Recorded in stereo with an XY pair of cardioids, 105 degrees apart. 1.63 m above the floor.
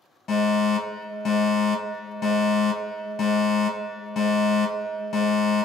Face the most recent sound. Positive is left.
turn(degrees=60)